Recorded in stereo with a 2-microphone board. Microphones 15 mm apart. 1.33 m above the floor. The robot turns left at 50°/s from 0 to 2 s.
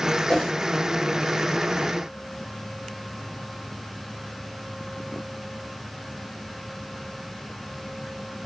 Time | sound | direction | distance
0.3 | a whoosh | 55° left (ahead or behind) | 1.2 m